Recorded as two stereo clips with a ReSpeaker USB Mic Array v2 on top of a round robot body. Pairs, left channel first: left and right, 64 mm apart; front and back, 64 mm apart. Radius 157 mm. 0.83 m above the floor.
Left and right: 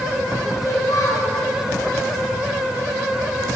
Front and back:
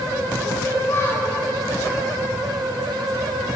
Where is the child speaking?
50° left, 8 m.